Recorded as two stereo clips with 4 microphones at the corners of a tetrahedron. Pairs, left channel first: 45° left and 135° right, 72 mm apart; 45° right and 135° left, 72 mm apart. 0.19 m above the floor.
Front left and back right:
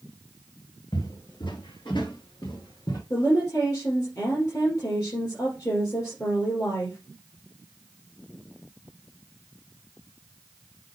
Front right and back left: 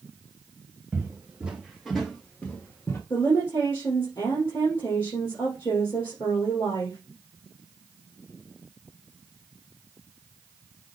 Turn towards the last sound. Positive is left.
turn(degrees=-5)